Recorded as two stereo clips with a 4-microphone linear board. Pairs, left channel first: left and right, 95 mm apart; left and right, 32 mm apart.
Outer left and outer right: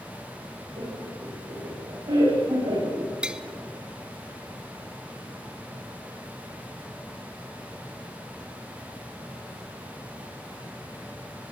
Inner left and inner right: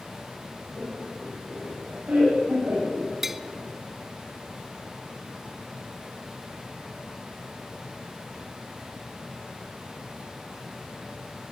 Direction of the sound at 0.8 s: 70° right (ahead or behind).